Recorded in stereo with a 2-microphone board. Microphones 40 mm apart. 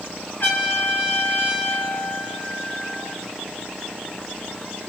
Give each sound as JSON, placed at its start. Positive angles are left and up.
{"t": 0.4, "sound": "a trumpet", "side_deg": 60, "distance_m": 1.4}